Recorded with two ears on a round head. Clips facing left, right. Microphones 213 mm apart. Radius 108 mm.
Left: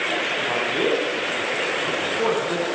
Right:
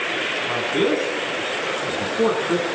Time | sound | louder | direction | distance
0.5 | a man speaking | right 3 dB | 25° right (ahead or behind) | 7.5 m